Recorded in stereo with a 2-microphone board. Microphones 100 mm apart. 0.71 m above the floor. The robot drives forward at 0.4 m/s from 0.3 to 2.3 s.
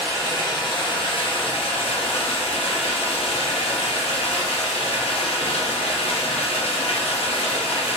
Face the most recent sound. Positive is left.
turn(degrees=80)